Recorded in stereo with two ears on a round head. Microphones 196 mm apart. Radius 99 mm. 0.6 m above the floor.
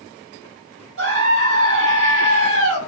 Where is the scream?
60° right (ahead or behind), 5.5 m.